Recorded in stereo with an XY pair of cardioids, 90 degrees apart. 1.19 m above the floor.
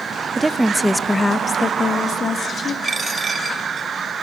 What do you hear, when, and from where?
0.4 s a woman speaking: 25° right, 1.0 m; by 2.7 s 60° left, 2.5 m
2.8 s a dropped coin: 35° right, 2.5 m